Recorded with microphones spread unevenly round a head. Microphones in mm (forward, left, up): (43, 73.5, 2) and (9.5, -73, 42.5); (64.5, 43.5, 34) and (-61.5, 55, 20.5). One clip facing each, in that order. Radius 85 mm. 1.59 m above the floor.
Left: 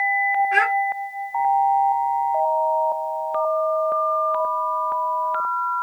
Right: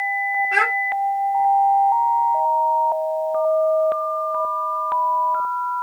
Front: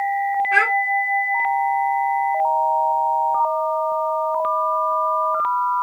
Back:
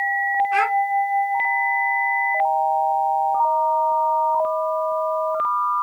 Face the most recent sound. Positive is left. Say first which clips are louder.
# left 2 dB, back 1 dB
turn(degrees=-50)